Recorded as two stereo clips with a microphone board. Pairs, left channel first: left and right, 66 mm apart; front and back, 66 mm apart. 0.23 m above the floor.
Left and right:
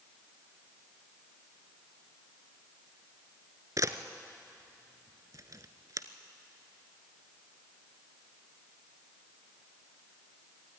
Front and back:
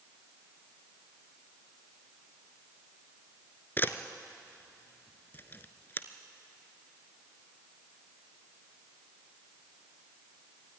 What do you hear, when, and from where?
3.8 s a camera shutter: 60° right, 0.9 m